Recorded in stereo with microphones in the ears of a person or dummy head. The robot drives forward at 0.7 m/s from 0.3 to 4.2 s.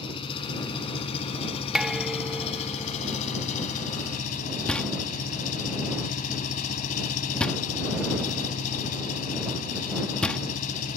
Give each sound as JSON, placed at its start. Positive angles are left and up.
{"t": 0.0, "sound": "an engine running", "side_deg": 30}
{"t": 1.8, "sound": "dishes clattering", "side_deg": 0}
{"t": 4.7, "sound": "knocking", "side_deg": 5}